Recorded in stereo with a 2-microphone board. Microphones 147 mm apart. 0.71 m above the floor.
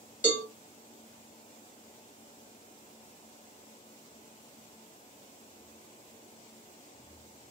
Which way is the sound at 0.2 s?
60° left (ahead or behind).